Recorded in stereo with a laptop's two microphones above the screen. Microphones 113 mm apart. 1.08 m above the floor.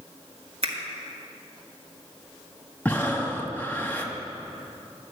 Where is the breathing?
15° left (ahead or behind), 1.3 m.